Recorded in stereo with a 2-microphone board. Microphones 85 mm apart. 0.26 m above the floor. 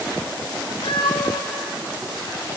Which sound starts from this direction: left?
A cat meowing, at 0.8 s.